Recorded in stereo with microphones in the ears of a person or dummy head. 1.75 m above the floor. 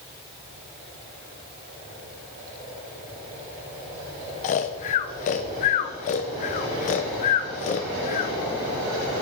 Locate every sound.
4.4 s snoring: 40° left (ahead or behind), 1.0 m